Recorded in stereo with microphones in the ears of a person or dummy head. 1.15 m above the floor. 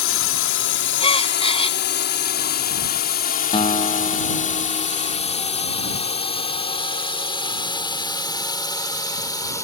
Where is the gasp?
35° left (ahead or behind).